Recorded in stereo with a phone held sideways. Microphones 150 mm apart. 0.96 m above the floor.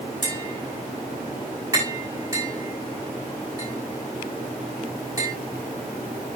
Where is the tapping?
25° right (ahead or behind), 7 m.